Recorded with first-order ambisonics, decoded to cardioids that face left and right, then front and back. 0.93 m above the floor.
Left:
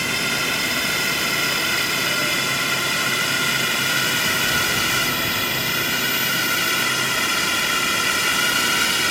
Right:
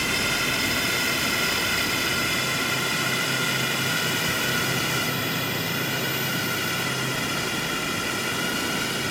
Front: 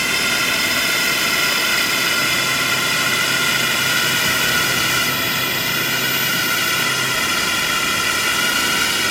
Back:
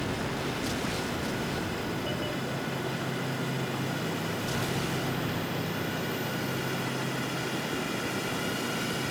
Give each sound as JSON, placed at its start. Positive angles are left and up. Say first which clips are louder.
{"t": 0.0, "sound": "a drone", "louder": "left 2 dB, front 15 dB", "azimuth_deg": 10}